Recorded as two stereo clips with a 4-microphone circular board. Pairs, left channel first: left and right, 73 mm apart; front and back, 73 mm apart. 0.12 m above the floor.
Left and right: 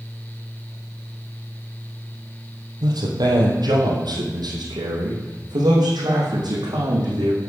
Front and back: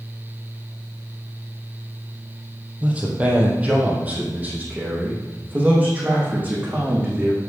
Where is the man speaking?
110° right, 3 m; by 7.4 s 115° right, 6 m.